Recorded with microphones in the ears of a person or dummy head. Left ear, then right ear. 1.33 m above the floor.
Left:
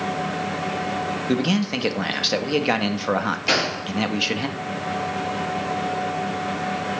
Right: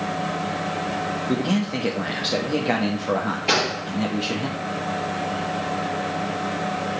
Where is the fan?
35° left (ahead or behind), 3.5 m.